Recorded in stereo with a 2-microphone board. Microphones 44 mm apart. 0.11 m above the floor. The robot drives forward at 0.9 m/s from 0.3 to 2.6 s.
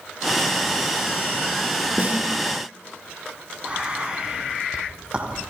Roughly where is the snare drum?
Right.